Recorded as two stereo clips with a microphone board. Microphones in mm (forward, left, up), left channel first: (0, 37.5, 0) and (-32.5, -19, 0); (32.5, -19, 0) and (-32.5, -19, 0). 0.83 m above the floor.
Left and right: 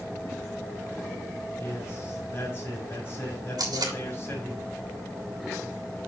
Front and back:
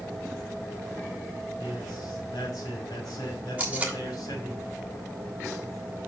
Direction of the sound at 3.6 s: 110° right.